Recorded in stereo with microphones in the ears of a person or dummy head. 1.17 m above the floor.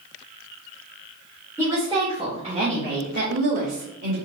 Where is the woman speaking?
10° right (ahead or behind), 1.5 m; by 4.2 s 60° right (ahead or behind), 1.9 m.